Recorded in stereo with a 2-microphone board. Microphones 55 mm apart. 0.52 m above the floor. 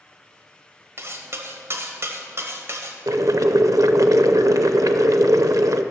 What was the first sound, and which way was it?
Cutlery clinking, 55° right (ahead or behind).